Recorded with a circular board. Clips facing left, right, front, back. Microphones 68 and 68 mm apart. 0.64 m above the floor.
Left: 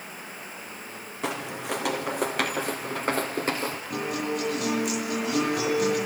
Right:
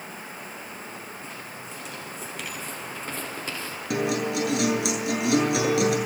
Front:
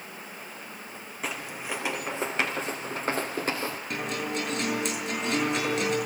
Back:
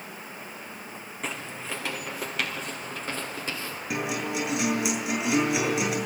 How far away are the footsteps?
About 2.5 m.